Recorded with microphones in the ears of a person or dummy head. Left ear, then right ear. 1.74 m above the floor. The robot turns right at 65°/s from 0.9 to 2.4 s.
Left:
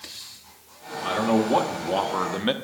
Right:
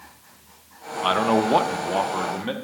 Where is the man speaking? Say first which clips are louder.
Right 3 dB; 55° right, 0.7 m; by 2.5 s 35° left, 0.7 m.